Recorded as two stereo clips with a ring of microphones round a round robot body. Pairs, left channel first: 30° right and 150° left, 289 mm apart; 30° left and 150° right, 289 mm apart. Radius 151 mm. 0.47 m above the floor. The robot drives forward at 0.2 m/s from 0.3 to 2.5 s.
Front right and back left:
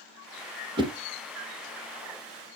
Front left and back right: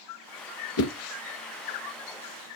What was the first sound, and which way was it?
A whoosh, 75° left.